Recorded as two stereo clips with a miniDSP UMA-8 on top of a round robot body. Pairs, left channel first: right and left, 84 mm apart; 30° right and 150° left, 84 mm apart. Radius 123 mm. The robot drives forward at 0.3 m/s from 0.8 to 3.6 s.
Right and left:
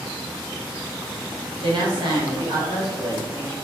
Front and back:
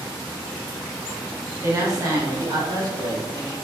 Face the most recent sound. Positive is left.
turn(degrees=120)